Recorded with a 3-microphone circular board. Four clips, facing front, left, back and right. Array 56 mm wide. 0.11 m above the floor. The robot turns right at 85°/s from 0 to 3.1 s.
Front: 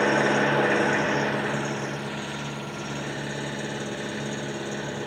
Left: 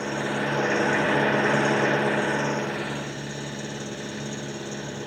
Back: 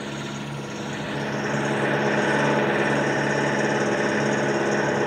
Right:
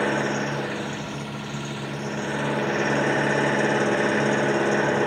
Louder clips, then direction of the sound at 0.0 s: Right 3 dB, front 11 dB; 30° right.